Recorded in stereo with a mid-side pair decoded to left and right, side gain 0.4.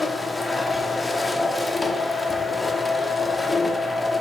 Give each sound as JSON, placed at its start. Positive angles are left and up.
{"t": 0.0, "sound": "a machine running", "azimuth_deg": 10, "distance_m": 0.9}